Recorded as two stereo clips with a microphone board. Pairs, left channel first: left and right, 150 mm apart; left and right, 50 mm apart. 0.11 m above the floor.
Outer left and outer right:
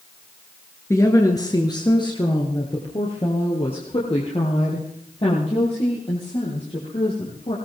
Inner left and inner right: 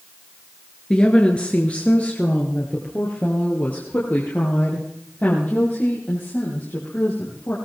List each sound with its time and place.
0.9 s a woman speaking: 20° left (ahead or behind), 1.5 m; by 7.5 s 45° left (ahead or behind), 4.5 m